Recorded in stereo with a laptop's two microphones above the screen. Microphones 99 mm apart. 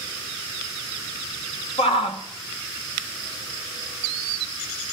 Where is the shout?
70° left (ahead or behind), 1.9 m.